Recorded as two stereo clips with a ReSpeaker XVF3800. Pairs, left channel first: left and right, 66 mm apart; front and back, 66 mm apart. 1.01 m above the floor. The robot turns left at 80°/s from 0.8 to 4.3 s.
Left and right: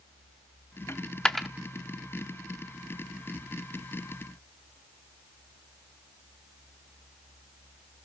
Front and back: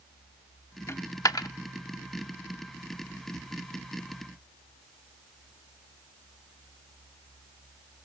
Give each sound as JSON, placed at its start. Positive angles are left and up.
{"t": 0.9, "sound": "a dropped coin", "azimuth_deg": 45, "distance_m": 1.0}